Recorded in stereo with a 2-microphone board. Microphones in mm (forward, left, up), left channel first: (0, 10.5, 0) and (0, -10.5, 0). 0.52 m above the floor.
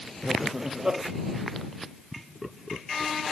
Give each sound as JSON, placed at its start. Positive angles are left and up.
{"t": 0.2, "sound": "laughter", "side_deg": -25}
{"t": 2.1, "sound": "laughter", "side_deg": -10}